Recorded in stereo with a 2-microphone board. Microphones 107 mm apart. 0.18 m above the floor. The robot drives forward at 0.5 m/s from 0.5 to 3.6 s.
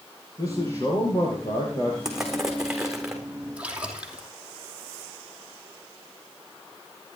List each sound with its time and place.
0.4 s a man speaking: 35° left (ahead or behind), 5.5 m; by 1.9 s 40° left (ahead or behind), 5 m
2.0 s crushing: 5° right (ahead or behind), 3.5 m
3.6 s a splash: 10° right (ahead or behind), 2.5 m